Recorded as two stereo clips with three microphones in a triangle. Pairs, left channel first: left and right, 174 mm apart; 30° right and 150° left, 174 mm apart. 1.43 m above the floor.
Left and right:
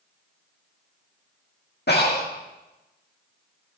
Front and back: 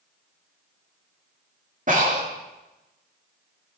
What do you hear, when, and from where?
1.9 s breathing: 110° left, 2.5 m